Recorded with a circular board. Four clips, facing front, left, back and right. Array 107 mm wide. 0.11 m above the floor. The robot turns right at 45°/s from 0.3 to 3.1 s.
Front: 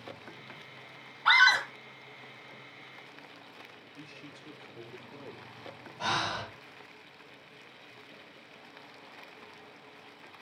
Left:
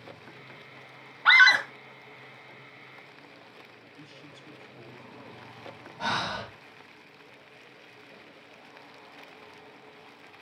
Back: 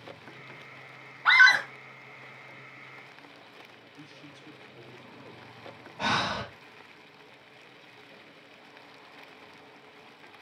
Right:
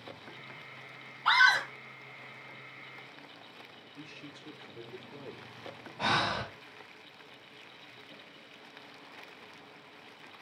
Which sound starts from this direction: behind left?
A scream, at 1.2 s.